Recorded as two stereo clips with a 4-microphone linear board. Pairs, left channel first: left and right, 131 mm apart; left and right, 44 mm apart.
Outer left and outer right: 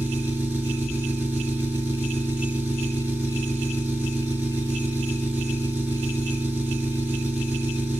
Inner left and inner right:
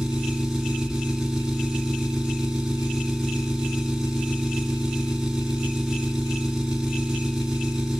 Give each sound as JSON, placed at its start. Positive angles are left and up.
{"t": 0.0, "sound": "an engine running", "side_deg": -10, "distance_m": 1.8}